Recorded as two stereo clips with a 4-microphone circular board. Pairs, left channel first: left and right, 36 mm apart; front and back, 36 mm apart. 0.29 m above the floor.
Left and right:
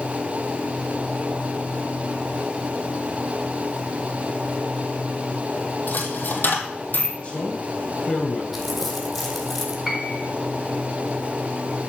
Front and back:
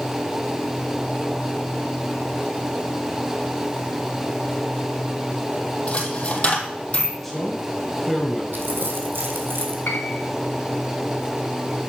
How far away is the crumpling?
About 3 m.